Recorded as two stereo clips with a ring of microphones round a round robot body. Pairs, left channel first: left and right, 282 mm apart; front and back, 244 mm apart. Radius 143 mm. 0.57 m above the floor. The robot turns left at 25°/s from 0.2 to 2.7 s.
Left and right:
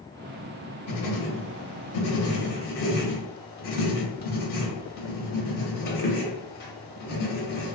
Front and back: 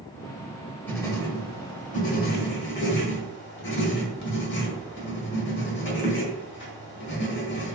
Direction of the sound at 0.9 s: 80° left.